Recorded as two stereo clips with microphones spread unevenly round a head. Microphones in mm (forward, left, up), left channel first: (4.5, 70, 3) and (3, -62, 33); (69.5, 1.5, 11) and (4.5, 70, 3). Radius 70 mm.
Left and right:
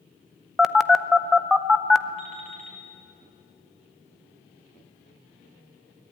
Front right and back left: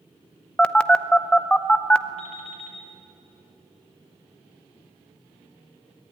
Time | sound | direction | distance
0.6 | a phone buzzing | 30° left | 0.7 m
2.2 | an alarm clock | 60° right | 7 m